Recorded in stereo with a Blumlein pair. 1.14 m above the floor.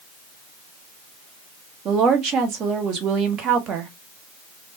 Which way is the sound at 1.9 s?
30° right.